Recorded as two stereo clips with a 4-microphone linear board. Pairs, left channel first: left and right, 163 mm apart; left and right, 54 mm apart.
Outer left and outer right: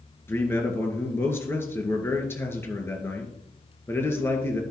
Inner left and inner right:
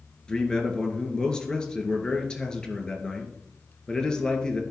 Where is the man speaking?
15° left (ahead or behind), 2.0 m.